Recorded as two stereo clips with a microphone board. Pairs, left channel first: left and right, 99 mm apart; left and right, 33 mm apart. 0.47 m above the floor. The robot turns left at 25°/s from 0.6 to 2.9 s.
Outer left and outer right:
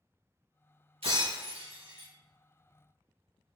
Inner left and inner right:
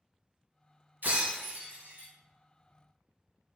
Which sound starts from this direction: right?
Breaking glass, at 1.0 s.